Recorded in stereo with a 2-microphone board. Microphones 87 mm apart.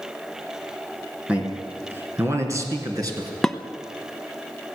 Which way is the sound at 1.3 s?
15° right (ahead or behind).